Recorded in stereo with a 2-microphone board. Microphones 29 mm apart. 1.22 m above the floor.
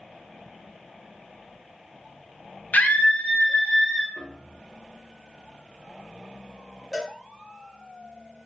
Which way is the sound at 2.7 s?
70° left (ahead or behind).